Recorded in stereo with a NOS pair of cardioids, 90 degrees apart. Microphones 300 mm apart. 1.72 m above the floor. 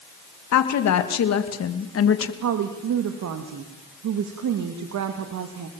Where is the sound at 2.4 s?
70° right, 2.5 m.